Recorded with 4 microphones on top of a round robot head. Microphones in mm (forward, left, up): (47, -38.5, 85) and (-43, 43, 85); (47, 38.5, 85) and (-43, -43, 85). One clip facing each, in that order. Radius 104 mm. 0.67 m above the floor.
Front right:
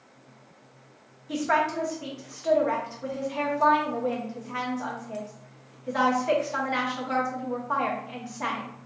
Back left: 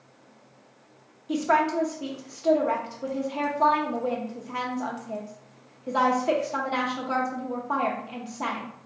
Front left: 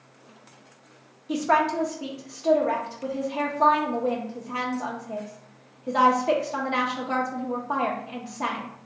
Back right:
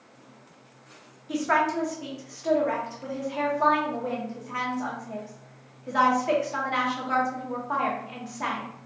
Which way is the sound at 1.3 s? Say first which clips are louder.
Back left 2 dB, front left 2 dB; 90° left.